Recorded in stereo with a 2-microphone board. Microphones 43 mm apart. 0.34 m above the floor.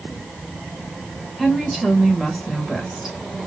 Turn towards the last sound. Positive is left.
turn(degrees=-10)  # may be behind; listen again after turning